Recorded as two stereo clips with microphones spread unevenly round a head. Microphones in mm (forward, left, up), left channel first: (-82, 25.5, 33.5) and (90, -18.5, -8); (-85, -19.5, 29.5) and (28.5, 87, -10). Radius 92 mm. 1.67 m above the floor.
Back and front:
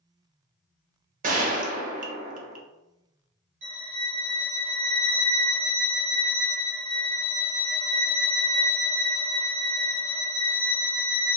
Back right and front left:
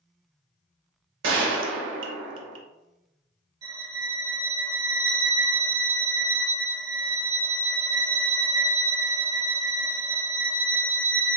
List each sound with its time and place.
1.2 s a gunshot: 35° left, 0.6 m
3.6 s a violin: 25° right, 1.8 m